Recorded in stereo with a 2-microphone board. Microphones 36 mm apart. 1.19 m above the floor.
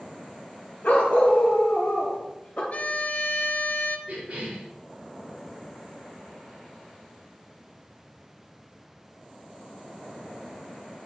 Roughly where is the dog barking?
Left.